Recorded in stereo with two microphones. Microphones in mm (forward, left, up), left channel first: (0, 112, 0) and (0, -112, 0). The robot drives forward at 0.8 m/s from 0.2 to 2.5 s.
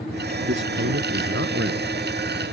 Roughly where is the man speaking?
Right.